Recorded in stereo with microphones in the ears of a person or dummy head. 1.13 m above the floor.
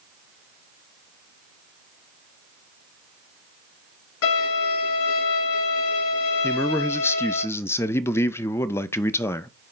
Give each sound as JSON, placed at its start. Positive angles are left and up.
{"t": 4.2, "sound": "a violin", "side_deg": 80, "distance_m": 6.0}
{"t": 6.4, "sound": "a man speaking", "side_deg": 20, "distance_m": 0.7}